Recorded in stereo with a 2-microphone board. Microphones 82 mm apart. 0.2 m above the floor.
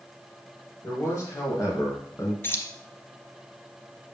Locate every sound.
0.8 s a man speaking: 40° left (ahead or behind), 3 m; by 2.3 s 45° left (ahead or behind), 2 m
2.4 s keys jangling: 30° left (ahead or behind), 0.8 m